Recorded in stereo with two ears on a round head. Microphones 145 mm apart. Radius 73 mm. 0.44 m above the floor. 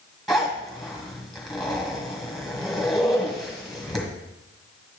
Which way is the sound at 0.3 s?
Centre (ahead or behind).